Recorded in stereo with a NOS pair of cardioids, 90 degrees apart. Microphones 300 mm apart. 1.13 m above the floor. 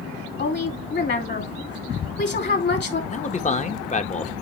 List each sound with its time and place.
0.4 s a woman speaking: 40° left, 2.5 m
3.1 s a man speaking: 25° left, 1.3 m